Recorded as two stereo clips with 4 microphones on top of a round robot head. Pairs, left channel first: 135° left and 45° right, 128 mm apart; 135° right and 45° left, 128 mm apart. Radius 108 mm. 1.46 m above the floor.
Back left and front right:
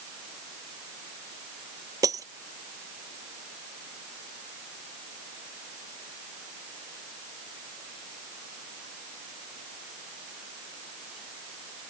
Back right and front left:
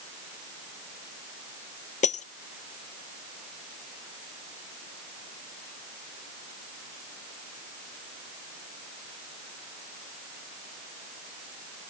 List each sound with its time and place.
2.0 s breaking glass: 110° right